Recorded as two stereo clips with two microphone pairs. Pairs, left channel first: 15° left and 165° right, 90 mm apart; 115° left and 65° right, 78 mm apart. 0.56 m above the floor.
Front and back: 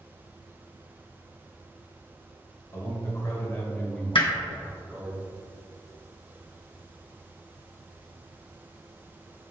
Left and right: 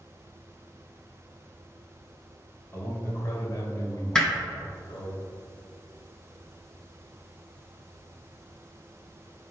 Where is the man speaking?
60° left, 2.5 m; by 5.2 s 115° left, 1.5 m.